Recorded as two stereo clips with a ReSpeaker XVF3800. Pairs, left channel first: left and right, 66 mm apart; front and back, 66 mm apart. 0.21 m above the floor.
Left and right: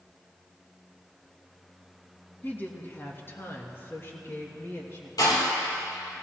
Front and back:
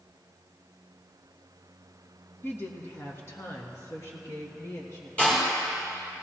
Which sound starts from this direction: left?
A door slam, at 5.2 s.